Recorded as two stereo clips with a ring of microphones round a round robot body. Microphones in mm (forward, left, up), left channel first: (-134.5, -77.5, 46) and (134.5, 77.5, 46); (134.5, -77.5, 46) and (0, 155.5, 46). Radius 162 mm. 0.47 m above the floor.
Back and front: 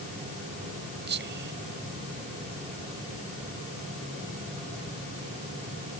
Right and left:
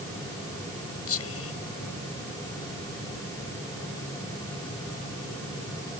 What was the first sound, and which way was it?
Whispering, 25° right.